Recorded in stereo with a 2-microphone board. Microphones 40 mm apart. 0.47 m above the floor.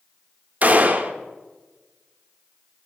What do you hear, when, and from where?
0.6 s a gunshot: 40° right (ahead or behind), 0.5 m